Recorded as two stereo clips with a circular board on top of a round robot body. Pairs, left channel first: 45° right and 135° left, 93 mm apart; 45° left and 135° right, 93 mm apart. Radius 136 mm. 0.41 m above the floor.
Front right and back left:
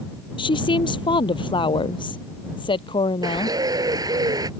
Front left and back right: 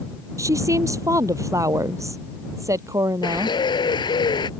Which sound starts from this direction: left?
A bird, at 3.2 s.